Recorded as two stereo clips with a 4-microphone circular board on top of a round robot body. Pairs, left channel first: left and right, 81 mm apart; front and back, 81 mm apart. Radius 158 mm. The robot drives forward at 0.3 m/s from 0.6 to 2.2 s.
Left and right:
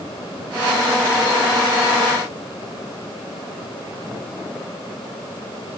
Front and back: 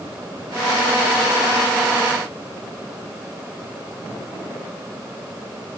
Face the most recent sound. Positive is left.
No sound to turn to.